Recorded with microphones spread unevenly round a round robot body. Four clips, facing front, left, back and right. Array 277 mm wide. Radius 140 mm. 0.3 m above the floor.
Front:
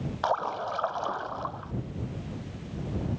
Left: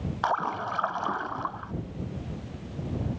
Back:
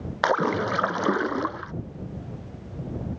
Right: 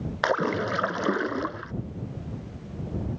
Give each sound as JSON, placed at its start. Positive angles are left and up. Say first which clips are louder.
{"t": 0.2, "sound": "a splash", "louder": "right 3 dB, back 6 dB", "azimuth_deg": -140}